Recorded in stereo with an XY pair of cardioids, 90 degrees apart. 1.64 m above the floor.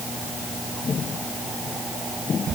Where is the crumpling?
I don't hear crumpling.